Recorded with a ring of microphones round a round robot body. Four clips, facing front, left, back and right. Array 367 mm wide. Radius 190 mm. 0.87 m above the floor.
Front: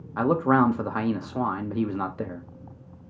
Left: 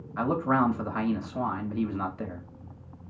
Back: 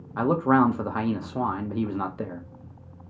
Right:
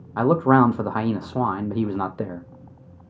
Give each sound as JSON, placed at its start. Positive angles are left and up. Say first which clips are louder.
{"t": 0.2, "sound": "a man speaking", "louder": "right 8 dB, even", "azimuth_deg": -90, "distance_m": 0.8}